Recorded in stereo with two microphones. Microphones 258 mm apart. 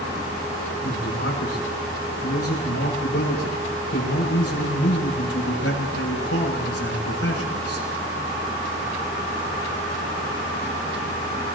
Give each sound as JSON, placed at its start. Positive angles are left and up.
{"t": 0.8, "sound": "a man speaking", "side_deg": 70, "distance_m": 7.0}